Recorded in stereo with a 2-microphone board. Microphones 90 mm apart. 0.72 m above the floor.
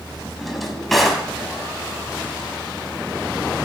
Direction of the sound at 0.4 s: Centre (ahead or behind).